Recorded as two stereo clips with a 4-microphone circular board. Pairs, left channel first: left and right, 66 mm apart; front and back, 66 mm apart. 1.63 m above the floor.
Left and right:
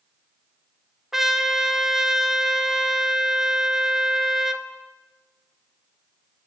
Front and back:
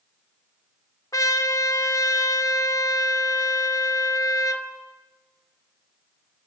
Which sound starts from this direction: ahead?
A trumpet, at 1.1 s.